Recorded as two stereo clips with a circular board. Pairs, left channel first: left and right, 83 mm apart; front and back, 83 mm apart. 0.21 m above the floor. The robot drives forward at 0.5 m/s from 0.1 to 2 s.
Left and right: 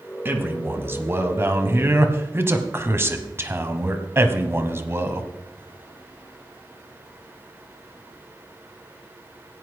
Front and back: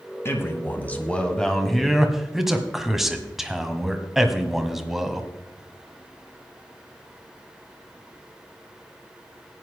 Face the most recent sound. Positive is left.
turn(degrees=-100)